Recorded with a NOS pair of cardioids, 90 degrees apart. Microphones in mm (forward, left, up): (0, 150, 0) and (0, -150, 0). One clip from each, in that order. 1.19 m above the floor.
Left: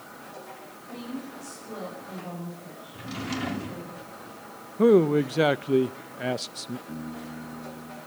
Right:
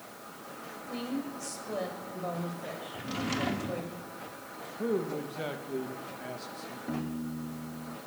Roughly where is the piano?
Ahead right.